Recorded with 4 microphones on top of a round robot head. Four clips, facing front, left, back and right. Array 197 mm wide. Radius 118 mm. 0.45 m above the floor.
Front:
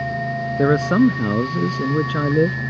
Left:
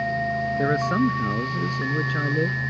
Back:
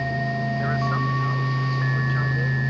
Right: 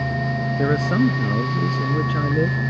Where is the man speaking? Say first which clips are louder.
Right 3 dB, front 15 dB; 5° right.